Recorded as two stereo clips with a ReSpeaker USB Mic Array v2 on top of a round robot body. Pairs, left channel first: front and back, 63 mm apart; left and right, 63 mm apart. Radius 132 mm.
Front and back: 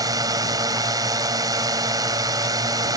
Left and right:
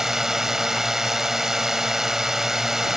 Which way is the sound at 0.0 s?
170° right.